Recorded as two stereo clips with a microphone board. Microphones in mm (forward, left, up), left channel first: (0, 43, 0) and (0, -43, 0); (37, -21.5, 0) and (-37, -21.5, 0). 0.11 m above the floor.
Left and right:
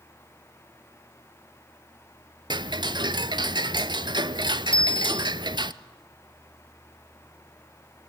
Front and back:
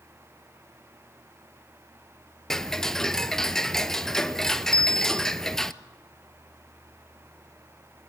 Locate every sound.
2.5 s ticking: 85° right, 0.7 m
4.7 s a bicycle bell: 80° left, 3 m